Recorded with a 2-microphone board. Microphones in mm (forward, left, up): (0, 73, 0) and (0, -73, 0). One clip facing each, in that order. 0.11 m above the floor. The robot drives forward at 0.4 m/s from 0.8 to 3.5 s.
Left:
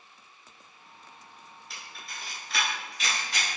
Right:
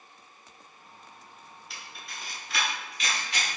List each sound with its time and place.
1.7 s a camera shutter: centre (ahead or behind), 1.5 m